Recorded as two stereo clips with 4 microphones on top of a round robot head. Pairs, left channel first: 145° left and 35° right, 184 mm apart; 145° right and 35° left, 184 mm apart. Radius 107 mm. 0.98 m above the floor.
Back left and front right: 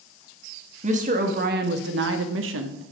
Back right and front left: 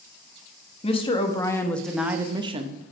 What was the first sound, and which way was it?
A woman speaking, 85° right.